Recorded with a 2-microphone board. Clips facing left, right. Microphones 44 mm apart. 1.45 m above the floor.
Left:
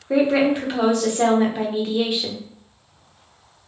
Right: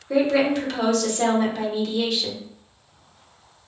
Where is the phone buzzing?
I don't hear a phone buzzing.